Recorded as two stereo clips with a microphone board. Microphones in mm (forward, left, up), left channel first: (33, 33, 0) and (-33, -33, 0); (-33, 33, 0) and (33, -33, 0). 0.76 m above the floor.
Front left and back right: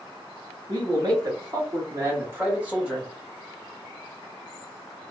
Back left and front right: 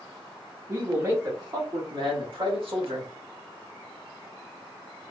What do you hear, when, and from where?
0.7 s a man speaking: 105° right, 1.9 m; by 3.1 s 50° right, 1.6 m